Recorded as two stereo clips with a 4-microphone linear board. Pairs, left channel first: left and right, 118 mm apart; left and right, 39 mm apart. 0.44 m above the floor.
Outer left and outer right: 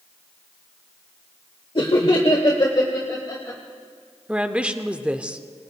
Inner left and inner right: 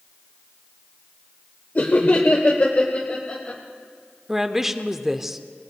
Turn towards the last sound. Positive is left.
turn(degrees=-10)  # may be behind; listen again after turning